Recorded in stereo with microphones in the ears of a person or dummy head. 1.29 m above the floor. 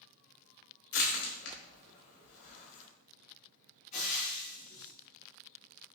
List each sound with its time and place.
0.9 s crushing: 85° left, 3.5 m
3.9 s frying: 40° left (ahead or behind), 3 m